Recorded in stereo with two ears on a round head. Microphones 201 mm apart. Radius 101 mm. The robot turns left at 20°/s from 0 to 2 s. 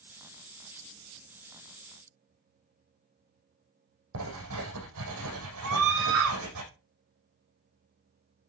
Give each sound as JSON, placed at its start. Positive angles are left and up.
{"t": 4.1, "sound": "writing", "side_deg": -70, "distance_m": 6.0}
{"t": 5.6, "sound": "a scream", "side_deg": -65, "distance_m": 2.0}